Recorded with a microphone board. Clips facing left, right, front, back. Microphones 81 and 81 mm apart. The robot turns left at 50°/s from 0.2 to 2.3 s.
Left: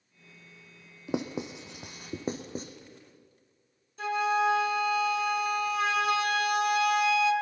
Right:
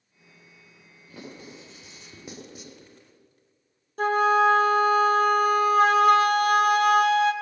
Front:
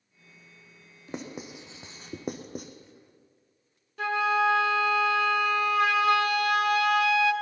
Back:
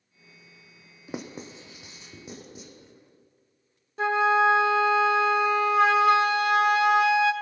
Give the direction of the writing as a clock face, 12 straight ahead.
9 o'clock.